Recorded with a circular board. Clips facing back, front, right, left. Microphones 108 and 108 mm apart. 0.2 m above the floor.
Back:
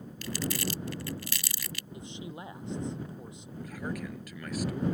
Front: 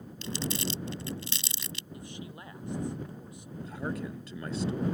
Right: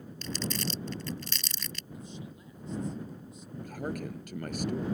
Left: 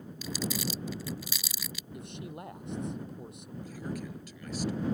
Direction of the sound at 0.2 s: 20° left.